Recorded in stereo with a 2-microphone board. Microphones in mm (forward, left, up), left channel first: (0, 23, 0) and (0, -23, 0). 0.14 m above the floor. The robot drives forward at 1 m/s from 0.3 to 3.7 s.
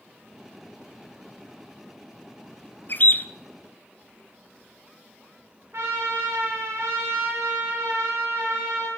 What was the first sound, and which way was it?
A bird, 45° left (ahead or behind).